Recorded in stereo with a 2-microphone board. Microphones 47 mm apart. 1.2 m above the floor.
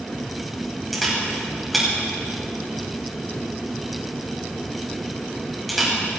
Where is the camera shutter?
Centre (ahead or behind), 5 m.